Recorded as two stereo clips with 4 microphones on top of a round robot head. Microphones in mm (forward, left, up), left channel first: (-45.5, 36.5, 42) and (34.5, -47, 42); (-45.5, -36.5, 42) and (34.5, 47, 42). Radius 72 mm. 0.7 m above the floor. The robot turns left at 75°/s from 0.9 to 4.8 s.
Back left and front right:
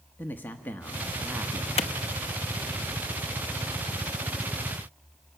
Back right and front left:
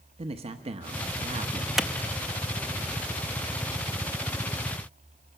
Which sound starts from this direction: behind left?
A clap, at 1.8 s.